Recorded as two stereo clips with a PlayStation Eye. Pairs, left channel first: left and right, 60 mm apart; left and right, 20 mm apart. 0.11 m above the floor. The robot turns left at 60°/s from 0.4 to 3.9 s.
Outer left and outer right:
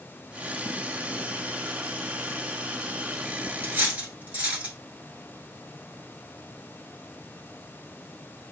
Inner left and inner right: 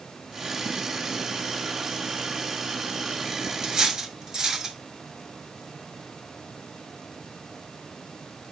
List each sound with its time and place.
3.6 s cutlery clinking: 35° right (ahead or behind), 0.8 m; by 4.8 s 25° right (ahead or behind), 0.8 m